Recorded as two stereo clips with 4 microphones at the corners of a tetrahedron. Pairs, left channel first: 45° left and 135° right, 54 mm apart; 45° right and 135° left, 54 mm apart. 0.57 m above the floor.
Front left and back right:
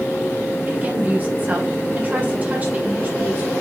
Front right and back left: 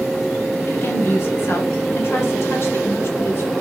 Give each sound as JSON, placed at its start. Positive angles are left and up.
{"t": 0.7, "sound": "a woman speaking", "azimuth_deg": -80, "distance_m": 2.0}